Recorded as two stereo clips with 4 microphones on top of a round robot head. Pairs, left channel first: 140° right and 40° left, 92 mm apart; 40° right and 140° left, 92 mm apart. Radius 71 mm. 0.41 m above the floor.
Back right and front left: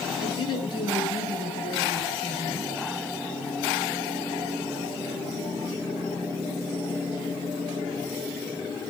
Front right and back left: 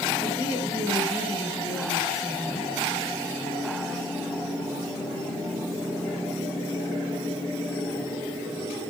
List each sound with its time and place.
0.2 s a woman speaking: 95° right, 6 m